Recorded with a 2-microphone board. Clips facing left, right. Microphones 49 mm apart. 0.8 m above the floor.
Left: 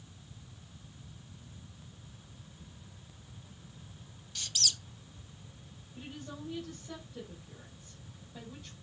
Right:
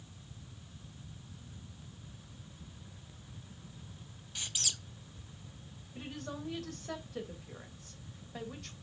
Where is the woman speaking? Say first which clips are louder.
Right 2 dB; 80° right, 3 m.